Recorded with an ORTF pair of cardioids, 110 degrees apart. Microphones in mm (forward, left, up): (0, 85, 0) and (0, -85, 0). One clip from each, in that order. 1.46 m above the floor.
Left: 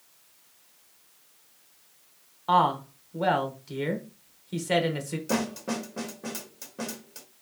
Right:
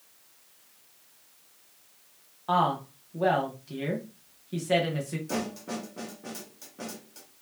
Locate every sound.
2.5 s a woman speaking: 25° left, 1.3 m
5.3 s a snare drum: 40° left, 1.0 m